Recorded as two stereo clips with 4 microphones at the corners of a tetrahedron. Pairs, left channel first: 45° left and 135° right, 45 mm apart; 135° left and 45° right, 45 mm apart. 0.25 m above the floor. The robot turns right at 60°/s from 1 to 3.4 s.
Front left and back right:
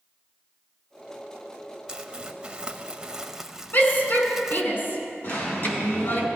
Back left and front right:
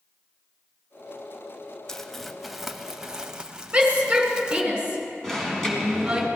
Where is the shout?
20° left, 3 m.